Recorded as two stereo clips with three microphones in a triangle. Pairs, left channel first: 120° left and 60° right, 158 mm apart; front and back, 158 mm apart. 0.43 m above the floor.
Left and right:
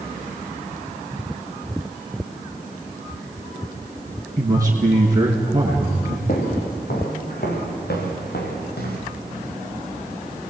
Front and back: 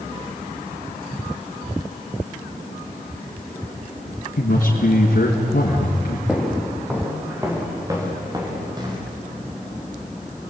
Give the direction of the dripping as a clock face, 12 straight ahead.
No dripping in this recording.